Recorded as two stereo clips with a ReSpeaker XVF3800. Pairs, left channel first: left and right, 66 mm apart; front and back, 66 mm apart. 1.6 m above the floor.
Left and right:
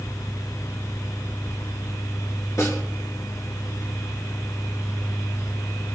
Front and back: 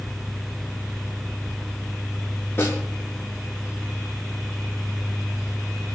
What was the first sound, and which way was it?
A snare drum, 50° left.